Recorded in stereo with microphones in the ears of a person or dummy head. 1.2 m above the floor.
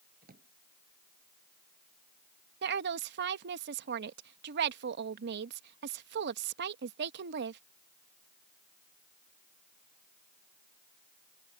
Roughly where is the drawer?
Right.